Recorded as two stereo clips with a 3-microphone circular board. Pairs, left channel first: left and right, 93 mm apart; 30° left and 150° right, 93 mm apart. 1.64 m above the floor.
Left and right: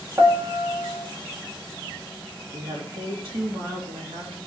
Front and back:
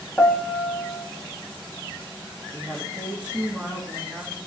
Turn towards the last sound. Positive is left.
turn(degrees=-70)